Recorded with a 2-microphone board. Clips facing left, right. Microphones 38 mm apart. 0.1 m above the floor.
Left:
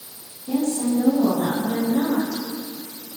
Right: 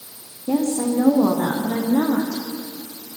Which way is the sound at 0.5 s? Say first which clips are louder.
Right 2 dB; 70° right (ahead or behind).